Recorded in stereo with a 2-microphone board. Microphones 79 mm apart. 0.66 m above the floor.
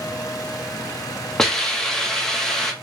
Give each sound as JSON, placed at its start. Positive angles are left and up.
{"t": 1.4, "sound": "a hiss", "side_deg": 5, "distance_m": 0.9}